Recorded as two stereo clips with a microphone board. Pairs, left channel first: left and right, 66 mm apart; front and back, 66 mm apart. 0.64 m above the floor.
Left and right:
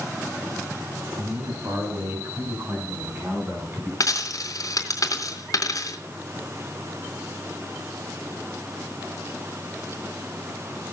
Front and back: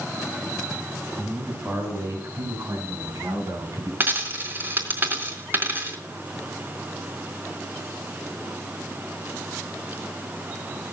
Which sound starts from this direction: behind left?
A dropped coin, at 4.0 s.